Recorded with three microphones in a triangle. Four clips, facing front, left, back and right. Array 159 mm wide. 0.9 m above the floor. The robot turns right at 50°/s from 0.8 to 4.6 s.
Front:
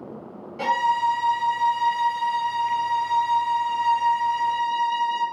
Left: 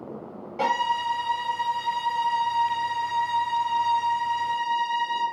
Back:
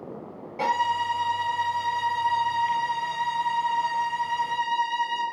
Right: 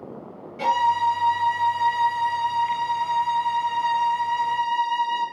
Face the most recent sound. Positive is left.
turn(degrees=-65)